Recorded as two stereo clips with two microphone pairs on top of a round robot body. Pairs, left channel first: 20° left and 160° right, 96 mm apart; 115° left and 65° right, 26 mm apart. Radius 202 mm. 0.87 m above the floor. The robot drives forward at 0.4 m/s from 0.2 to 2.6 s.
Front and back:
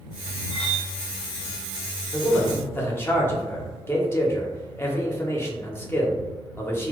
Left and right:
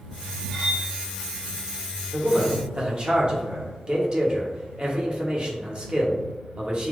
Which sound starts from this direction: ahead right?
A man speaking, at 2.1 s.